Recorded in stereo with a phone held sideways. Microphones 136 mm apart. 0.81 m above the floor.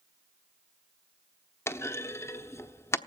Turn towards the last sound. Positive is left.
turn(degrees=20)  # may be behind; listen again after turning